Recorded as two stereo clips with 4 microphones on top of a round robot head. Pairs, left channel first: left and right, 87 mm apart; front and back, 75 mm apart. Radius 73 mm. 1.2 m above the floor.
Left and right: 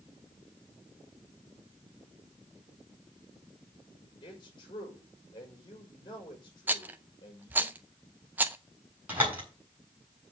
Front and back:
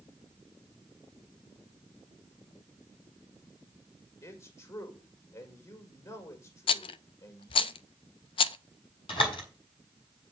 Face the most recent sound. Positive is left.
turn(degrees=-15)